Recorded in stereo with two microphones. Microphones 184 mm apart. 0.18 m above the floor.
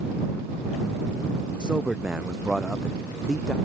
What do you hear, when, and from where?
1.6 s a man speaking: 5° right (ahead or behind); by 3.5 s centre (ahead or behind)